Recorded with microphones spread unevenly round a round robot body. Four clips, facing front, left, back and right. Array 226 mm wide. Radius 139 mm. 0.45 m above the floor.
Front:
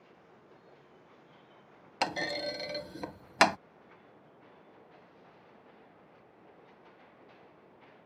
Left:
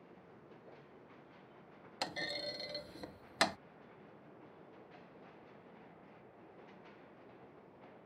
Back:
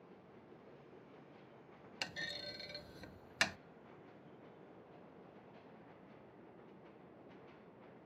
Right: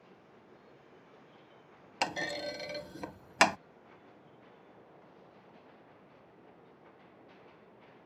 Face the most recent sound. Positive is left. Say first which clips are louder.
# right 7 dB, front 16 dB
turn(degrees=-25)